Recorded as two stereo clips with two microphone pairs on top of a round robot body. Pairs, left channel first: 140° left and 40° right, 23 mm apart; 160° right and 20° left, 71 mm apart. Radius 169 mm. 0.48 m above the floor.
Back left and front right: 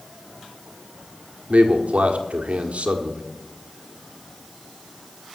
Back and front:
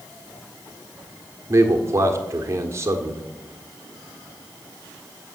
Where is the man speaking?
35° right, 1.6 m.